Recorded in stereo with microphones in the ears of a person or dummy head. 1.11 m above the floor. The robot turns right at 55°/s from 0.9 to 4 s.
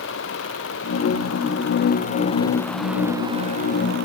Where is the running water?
70° left; by 4.1 s 120° right.